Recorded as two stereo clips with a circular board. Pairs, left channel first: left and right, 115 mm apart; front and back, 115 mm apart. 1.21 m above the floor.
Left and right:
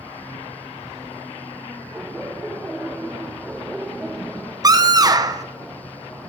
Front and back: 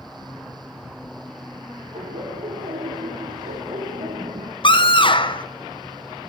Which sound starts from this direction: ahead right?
A scream, at 4.6 s.